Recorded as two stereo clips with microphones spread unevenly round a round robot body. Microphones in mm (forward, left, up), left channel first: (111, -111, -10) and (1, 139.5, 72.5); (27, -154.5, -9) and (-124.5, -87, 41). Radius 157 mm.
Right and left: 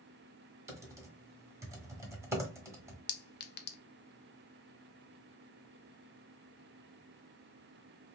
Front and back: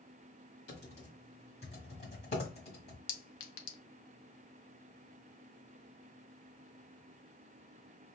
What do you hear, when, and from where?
0.7 s typing on a keyboard: 45° left, 1.3 m
3.1 s a clink: 10° right, 0.6 m